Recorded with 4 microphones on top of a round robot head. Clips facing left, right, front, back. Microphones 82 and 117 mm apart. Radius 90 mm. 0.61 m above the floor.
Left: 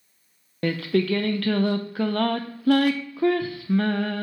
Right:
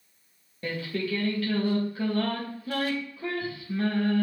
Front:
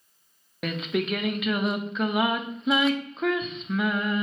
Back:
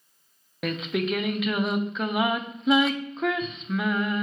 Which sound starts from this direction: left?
Singing, at 0.6 s.